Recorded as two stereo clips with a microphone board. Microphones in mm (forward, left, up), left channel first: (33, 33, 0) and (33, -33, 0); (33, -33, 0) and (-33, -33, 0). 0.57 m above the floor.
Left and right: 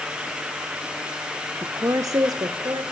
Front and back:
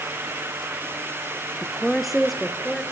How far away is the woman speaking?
About 1.0 m.